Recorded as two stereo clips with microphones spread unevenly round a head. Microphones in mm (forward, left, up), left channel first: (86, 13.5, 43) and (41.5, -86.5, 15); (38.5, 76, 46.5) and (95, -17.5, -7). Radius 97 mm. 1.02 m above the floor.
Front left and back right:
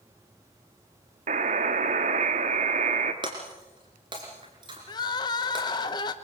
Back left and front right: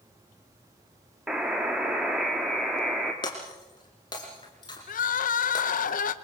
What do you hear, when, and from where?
1.3 s a buzzer: 150° right, 1.3 m
3.2 s breaking glass: 175° left, 2.5 m
4.9 s crying: 130° left, 0.9 m